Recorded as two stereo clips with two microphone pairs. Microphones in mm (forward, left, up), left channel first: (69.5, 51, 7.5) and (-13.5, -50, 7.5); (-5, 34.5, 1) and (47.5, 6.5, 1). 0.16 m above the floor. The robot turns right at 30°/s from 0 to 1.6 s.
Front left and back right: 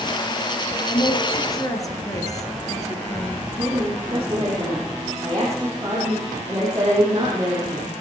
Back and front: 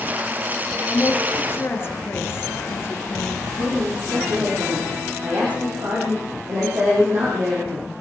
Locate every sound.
0.9 s a woman speaking: 90° left, 3 m; by 3.4 s 110° left, 3 m
3.5 s a woman speaking: 65° right, 6 m